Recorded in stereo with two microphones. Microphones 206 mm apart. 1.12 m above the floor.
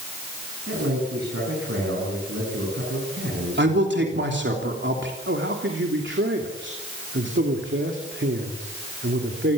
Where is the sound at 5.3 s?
65° right (ahead or behind), 3 m.